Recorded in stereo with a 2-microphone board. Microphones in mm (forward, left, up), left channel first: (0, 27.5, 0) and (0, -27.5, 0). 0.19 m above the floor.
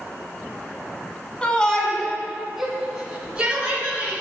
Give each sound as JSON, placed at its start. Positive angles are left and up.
{"t": 1.4, "sound": "a shout", "side_deg": 20, "distance_m": 1.8}